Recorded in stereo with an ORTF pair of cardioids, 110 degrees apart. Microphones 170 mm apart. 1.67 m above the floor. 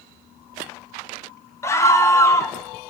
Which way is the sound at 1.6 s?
15° left.